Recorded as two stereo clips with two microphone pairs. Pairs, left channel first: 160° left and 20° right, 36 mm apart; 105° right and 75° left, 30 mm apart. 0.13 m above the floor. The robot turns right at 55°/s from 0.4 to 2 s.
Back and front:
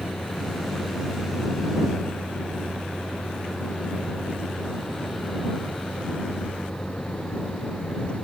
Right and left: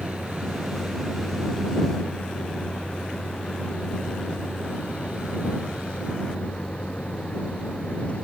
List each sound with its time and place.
0.0 s a vehicle: 125° left; by 8.2 s 145° right